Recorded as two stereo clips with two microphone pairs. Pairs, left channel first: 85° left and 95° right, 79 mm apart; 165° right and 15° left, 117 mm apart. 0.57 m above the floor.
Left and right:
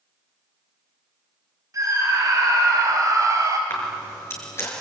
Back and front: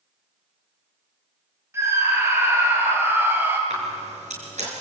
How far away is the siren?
No siren in this recording.